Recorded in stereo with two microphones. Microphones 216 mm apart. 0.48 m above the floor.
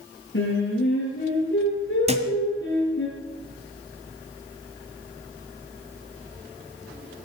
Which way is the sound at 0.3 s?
65° left (ahead or behind).